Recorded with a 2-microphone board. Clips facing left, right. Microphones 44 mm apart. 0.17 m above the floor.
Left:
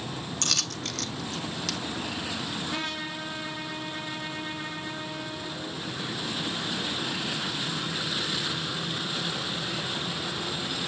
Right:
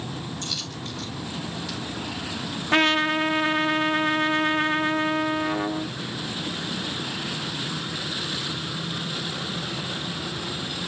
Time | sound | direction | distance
0.4 | a dropped coin | 75° left (ahead or behind) | 0.8 m
2.7 | a trumpet | 75° right (ahead or behind) | 0.8 m